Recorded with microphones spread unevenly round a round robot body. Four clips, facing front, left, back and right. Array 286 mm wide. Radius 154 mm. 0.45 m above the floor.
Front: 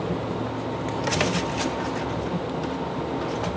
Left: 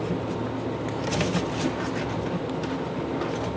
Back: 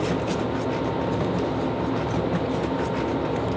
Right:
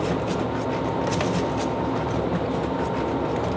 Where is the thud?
No thud in this recording.